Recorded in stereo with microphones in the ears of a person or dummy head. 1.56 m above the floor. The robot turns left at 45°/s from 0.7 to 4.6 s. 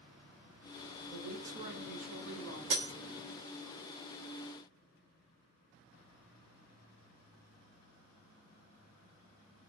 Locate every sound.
1.1 s a woman speaking: 10° right, 2 m; by 2.6 s 75° right, 2 m
2.7 s breaking glass: 60° right (ahead or behind), 1.2 m